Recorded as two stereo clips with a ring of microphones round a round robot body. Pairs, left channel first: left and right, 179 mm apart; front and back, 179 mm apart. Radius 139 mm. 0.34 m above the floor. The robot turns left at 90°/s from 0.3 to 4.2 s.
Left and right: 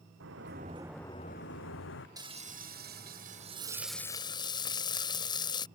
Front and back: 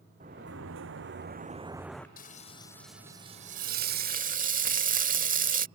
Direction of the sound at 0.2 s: 120° right.